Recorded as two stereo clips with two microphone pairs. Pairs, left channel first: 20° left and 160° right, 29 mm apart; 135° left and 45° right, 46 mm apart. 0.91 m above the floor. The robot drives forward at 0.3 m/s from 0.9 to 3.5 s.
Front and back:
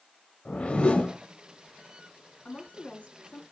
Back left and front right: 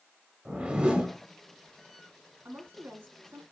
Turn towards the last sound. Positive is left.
turn(degrees=-20)